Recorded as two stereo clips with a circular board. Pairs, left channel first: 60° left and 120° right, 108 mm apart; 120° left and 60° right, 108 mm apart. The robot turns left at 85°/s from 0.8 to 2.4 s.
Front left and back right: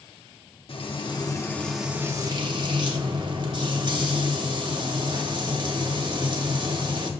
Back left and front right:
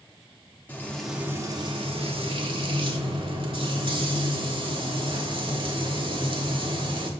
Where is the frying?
50° left, 1.1 m; by 7.1 s 85° right, 1.1 m.